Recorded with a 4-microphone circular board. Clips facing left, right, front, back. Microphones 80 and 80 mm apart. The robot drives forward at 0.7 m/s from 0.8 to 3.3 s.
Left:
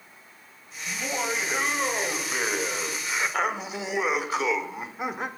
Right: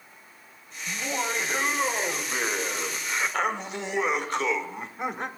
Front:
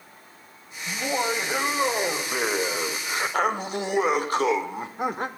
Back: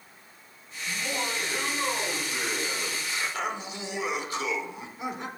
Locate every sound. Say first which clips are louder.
0.9 s laughter: even, front 6 dB; straight ahead, 3 m; by 5.3 s 5° left, 1.3 m